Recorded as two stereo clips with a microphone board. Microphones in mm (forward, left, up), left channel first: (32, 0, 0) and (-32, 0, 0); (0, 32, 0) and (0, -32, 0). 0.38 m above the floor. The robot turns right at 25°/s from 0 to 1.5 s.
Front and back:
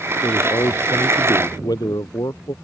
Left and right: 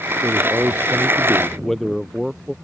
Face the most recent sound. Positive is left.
turn(degrees=5)